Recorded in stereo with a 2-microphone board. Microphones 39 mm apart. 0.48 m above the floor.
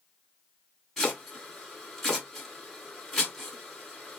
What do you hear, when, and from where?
1.0 s chopping: 10° left (ahead or behind), 1.8 m